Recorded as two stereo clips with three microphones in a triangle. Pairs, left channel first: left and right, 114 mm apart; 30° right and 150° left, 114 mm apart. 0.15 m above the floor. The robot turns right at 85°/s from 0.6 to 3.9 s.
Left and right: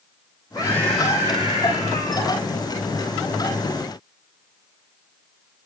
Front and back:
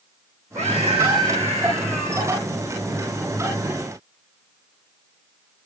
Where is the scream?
150° left, 6.5 m; by 2.4 s 60° right, 6.5 m.